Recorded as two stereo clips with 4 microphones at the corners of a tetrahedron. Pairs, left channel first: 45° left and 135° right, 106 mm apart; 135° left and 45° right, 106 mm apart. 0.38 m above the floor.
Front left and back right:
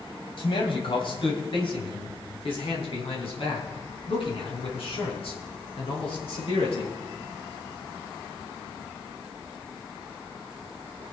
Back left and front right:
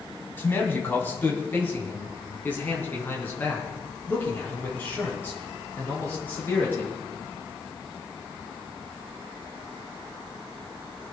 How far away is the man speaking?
About 2.5 m.